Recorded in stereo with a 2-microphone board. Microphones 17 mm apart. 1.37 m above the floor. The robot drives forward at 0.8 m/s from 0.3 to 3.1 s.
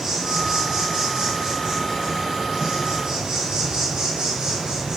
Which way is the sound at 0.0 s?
35° right (ahead or behind).